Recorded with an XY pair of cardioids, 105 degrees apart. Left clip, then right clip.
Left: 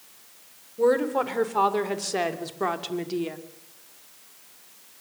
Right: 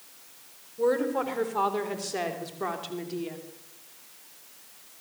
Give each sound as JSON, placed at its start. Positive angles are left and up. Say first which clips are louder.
{"t": 0.8, "sound": "a woman speaking", "louder": "left 4 dB", "azimuth_deg": 30, "distance_m": 4.0}